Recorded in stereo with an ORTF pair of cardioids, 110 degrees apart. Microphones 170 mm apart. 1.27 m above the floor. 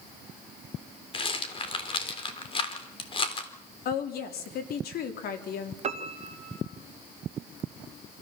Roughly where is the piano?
Ahead right.